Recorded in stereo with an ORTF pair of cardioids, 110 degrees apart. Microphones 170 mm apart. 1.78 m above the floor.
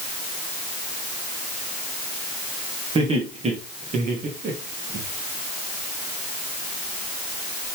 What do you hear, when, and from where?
3.0 s laughter: 35° right, 3 m; by 5.0 s 65° right, 2.5 m